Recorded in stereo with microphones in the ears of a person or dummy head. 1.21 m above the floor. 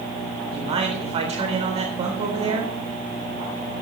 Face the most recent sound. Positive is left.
turn(degrees=-40)  # may be behind; listen again after turning